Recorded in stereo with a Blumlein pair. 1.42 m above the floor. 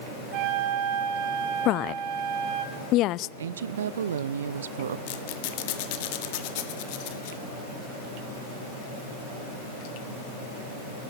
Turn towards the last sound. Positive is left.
turn(degrees=50)